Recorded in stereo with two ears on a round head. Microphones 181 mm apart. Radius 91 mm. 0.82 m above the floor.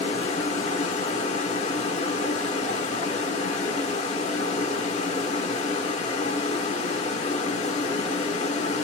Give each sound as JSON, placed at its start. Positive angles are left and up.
{"t": 0.0, "sound": "running water", "side_deg": 30, "distance_m": 0.9}